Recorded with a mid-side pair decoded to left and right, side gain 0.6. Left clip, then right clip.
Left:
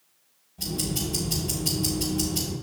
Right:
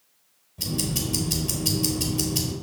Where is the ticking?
30° right, 3 m.